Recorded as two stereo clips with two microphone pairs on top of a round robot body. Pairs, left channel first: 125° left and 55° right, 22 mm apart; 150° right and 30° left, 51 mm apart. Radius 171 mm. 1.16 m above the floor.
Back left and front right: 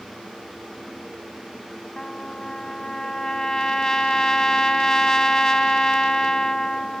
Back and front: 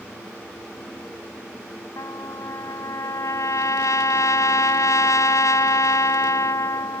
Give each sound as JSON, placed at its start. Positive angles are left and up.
{"t": 2.0, "sound": "a trumpet", "azimuth_deg": -170}